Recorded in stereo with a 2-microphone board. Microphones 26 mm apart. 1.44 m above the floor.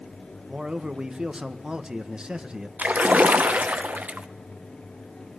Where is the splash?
80° right, 0.9 m.